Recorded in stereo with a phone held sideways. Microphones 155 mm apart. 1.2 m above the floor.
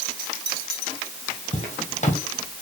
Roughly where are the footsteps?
Left.